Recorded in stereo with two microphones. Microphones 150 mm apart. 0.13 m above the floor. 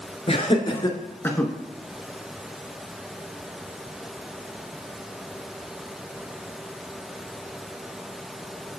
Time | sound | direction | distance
0.3 | laughter | 45° left (ahead or behind) | 1.6 m